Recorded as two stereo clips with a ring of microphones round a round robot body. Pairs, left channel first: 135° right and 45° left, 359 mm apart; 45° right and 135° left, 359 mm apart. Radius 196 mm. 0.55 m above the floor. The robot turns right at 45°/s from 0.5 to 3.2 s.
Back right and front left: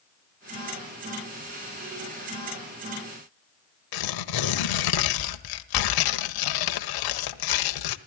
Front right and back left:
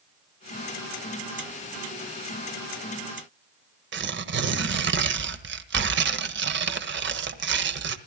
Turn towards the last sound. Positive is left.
turn(degrees=-165)